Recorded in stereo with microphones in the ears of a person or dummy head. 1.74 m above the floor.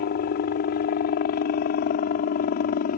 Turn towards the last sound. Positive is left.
turn(degrees=45)  # may be behind; listen again after turning